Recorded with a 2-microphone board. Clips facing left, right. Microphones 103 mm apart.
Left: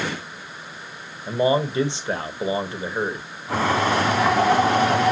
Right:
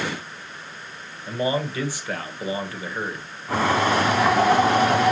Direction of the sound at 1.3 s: 25° left (ahead or behind).